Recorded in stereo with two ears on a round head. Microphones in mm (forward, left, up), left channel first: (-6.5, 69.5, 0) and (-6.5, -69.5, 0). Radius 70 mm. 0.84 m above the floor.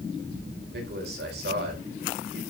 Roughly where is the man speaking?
Right.